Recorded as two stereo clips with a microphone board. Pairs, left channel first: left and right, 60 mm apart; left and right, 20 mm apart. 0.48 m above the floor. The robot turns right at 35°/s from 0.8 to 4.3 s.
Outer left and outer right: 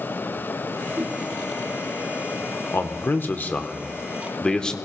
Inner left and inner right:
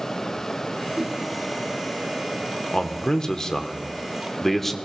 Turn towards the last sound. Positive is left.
turn(degrees=160)